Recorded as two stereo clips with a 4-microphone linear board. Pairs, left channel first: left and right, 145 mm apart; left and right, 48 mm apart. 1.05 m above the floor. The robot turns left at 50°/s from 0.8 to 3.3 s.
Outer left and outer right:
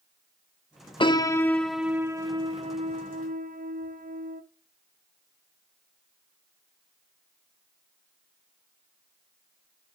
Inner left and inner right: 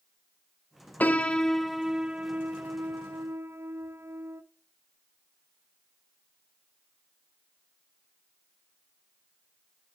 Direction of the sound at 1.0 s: 35° left.